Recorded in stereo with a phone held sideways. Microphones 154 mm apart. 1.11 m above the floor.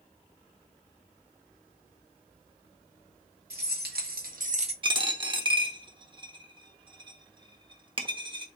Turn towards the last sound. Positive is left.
turn(degrees=-30)  # may be behind; listen again after turning